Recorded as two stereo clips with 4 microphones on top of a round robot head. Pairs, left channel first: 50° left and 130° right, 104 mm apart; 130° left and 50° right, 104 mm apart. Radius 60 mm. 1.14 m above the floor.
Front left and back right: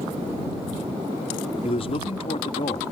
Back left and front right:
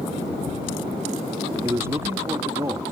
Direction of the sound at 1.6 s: 15° left.